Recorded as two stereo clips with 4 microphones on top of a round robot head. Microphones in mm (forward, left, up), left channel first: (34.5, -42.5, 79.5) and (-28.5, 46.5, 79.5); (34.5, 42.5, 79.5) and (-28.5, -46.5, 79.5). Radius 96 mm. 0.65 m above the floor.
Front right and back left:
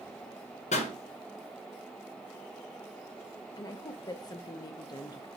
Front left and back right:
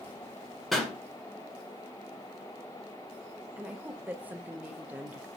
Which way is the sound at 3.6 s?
60° right.